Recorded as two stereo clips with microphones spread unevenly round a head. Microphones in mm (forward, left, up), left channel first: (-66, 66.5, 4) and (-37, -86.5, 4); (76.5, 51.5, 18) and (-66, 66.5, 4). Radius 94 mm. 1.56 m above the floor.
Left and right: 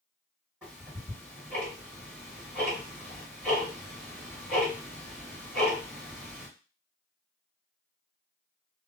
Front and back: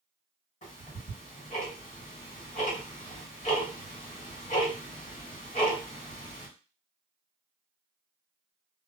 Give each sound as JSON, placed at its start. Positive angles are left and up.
{"t": 0.6, "sound": "ticking", "azimuth_deg": 5, "distance_m": 1.6}